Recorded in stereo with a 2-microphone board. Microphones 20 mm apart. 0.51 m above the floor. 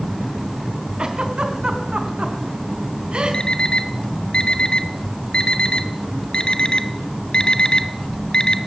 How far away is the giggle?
About 3.5 m.